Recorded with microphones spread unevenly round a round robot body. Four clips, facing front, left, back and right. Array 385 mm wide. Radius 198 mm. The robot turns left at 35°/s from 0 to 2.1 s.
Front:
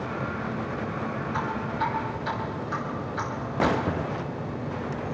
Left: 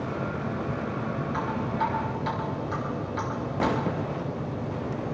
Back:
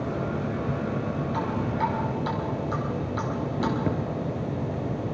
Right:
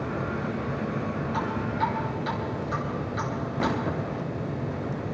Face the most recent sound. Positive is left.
turn(degrees=175)